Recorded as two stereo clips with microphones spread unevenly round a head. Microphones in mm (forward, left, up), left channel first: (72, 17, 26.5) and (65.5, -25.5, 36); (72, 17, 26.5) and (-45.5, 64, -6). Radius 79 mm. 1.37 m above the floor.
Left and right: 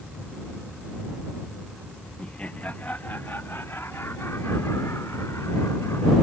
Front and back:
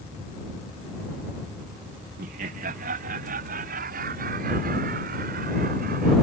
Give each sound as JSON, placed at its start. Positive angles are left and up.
{"t": 2.2, "sound": "laughter", "azimuth_deg": 165}